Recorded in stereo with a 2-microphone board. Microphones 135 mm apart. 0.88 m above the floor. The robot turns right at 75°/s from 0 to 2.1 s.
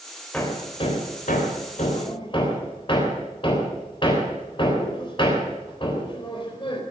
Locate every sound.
0.3 s hammering: 10° left (ahead or behind), 3.5 m; by 6.8 s 40° left (ahead or behind), 3.5 m